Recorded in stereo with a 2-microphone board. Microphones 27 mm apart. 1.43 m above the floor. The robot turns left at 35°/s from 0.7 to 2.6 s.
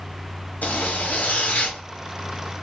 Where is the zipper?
90° left, 1.1 m; by 1.8 s 50° left, 1.1 m.